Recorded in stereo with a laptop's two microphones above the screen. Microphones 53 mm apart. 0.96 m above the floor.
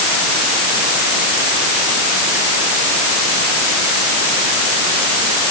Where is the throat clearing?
I don't hear throat clearing.